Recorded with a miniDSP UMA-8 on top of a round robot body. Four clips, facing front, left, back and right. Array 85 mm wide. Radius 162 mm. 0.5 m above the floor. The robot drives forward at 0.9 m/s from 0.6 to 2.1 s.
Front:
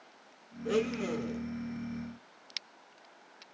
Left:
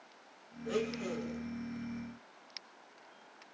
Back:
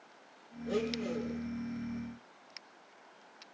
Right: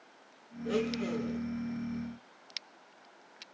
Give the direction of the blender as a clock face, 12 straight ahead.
12 o'clock.